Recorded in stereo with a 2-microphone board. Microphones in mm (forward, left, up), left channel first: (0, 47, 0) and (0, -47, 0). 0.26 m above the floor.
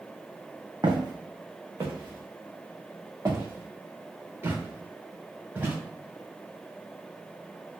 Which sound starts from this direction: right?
Footsteps, at 0.8 s.